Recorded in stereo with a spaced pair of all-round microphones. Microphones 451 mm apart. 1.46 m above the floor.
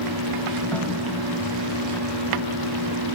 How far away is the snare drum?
About 4 m.